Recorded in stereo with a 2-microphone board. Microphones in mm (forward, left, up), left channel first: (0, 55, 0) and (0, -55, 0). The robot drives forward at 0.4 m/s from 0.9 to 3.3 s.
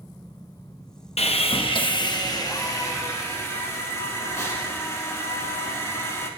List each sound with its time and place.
1.2 s sawing: 70° left (ahead or behind), 0.5 m; by 6.3 s 25° left (ahead or behind), 1.1 m